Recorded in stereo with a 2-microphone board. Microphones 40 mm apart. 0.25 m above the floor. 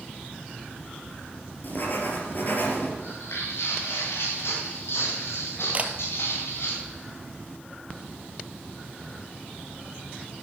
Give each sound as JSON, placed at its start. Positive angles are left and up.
{"t": 1.6, "sound": "writing", "side_deg": 50, "distance_m": 3.0}
{"t": 3.0, "sound": "footsteps", "side_deg": 90, "distance_m": 6.5}
{"t": 5.7, "sound": "a camera shutter", "side_deg": -35, "distance_m": 1.2}